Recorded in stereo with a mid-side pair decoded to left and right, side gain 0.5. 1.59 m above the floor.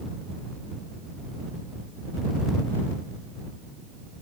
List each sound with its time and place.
Only background noise.